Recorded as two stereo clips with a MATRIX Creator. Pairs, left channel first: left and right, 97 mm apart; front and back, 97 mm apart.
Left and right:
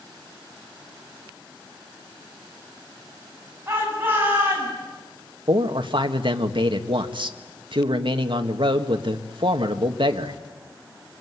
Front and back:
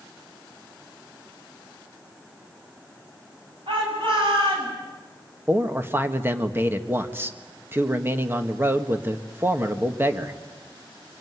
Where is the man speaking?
115° right, 1.5 m.